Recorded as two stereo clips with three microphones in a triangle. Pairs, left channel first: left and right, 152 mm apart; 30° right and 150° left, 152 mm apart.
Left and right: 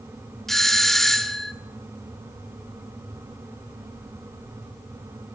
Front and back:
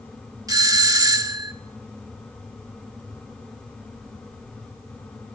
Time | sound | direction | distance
0.5 | a doorbell | 175° left | 1.3 m